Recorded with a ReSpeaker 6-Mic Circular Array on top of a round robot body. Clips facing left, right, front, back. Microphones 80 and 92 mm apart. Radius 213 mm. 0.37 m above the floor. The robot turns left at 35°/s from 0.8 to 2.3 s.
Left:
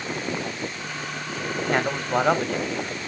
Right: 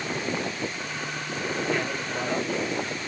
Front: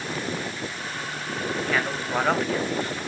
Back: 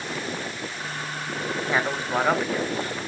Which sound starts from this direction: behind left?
A man speaking, at 1.7 s.